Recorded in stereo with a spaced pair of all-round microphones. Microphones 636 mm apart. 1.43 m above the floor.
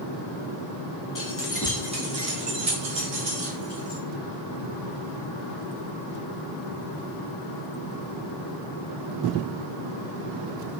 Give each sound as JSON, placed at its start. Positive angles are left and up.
{"t": 1.1, "sound": "keys jangling", "side_deg": 30, "distance_m": 0.7}